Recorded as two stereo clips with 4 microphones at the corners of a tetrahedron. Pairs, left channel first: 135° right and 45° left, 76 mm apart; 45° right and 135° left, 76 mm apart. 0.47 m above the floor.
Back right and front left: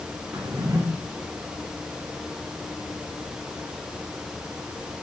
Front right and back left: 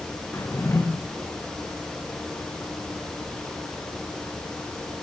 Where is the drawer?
5° left, 8 m.